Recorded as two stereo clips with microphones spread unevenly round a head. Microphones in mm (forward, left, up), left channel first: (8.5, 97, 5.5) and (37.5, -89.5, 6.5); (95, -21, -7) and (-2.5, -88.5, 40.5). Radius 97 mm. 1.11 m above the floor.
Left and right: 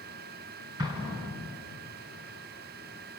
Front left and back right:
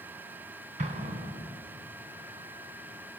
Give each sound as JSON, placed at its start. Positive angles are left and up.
{"t": 0.8, "sound": "an explosion", "azimuth_deg": -150, "distance_m": 2.5}